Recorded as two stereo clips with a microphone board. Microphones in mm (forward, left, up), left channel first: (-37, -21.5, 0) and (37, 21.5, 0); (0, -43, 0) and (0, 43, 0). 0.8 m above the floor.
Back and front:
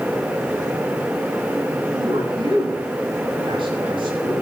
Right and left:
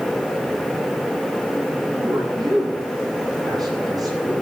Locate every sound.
1.9 s a man speaking: 50° left, 9.5 m